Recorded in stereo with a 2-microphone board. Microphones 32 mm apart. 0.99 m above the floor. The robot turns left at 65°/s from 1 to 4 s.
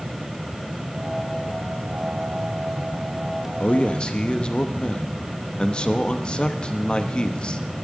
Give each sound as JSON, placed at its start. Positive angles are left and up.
{"t": 3.6, "sound": "a man speaking", "side_deg": 55, "distance_m": 1.0}